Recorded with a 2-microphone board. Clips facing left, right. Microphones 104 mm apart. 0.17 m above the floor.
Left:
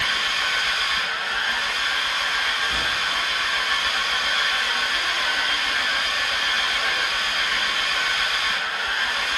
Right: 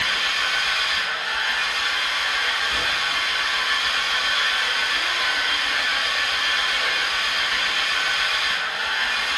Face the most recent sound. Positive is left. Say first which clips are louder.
# even
turn(degrees=40)  # may be behind; listen again after turning